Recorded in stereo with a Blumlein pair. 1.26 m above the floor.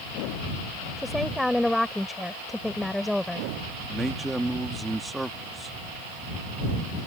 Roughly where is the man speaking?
Ahead.